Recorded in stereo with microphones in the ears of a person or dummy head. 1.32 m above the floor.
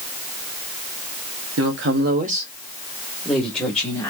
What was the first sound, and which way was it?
A woman speaking, 65° right (ahead or behind).